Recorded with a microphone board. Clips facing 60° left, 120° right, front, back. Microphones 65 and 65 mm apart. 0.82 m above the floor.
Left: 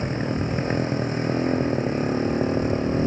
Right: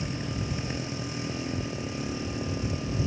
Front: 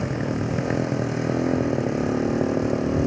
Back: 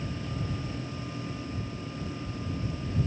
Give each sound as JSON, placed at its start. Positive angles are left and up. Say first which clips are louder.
{"t": 0.0, "sound": "a motorcycle", "louder": "left 8 dB, front 10 dB", "azimuth_deg": 15}